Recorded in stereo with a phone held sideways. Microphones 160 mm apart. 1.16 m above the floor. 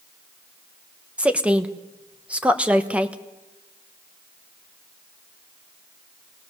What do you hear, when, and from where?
1.2 s a woman speaking: 10° right (ahead or behind), 1.2 m